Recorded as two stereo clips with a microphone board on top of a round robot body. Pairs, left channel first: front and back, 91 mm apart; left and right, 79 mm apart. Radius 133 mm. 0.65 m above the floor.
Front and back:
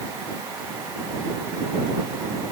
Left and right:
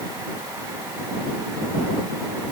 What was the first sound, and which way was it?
Only background noise.